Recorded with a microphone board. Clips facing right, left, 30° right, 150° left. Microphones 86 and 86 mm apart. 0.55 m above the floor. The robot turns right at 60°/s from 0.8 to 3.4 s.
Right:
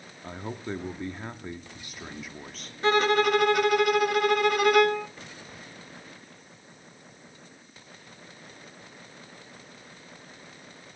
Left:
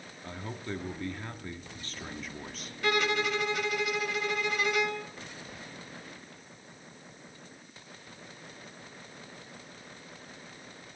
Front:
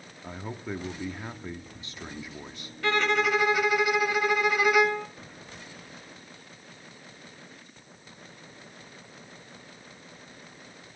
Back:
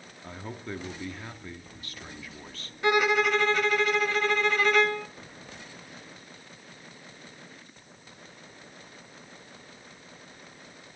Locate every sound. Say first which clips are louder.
0.2 s a man speaking: right 4 dB, front 2 dB; 100° right, 1.0 m; by 2.7 s 15° left, 1.0 m
2.8 s a violin: right 7 dB, back 2 dB; 145° right, 0.7 m; by 5.1 s 110° right, 0.7 m